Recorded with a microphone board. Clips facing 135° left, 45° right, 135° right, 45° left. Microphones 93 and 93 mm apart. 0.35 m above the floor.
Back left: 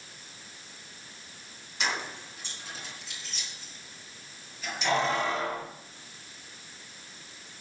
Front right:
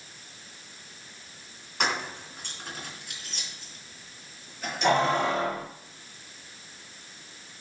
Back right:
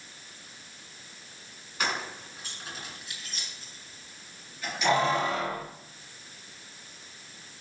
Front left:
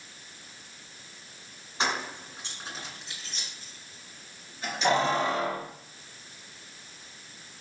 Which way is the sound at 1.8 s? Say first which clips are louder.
Front right 3 dB, front left 2 dB; 20° right.